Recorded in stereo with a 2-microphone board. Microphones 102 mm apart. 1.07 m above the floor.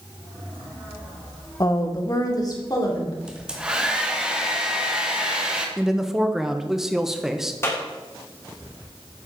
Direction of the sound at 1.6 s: 35° left (ahead or behind).